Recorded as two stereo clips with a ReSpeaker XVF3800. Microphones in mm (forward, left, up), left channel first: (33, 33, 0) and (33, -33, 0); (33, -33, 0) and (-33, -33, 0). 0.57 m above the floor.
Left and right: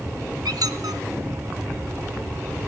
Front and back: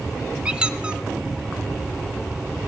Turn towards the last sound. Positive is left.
turn(degrees=-105)